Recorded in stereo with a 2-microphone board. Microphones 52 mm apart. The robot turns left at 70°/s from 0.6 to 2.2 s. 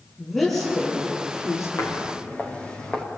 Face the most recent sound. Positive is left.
turn(degrees=20)  # may be behind; listen again after turning